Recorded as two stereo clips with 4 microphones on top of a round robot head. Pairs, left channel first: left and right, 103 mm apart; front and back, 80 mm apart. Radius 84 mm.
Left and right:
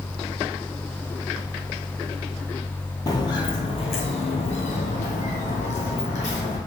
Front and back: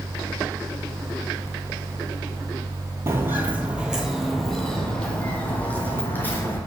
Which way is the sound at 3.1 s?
135° left.